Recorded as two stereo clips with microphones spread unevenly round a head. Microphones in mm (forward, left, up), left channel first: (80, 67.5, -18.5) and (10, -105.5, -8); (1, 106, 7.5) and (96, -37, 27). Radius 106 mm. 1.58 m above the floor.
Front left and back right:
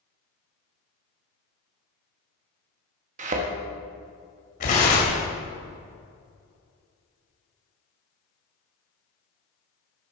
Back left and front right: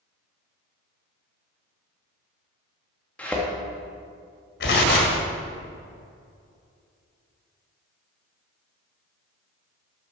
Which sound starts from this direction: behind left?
Tearing paper, at 4.6 s.